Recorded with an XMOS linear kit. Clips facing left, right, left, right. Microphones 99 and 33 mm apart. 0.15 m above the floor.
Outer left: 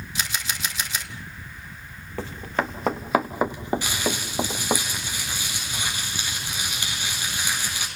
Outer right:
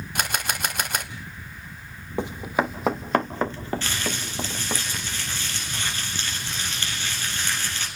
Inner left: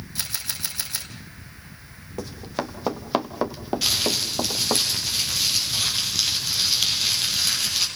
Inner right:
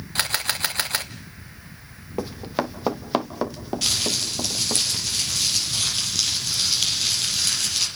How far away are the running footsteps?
About 1.5 m.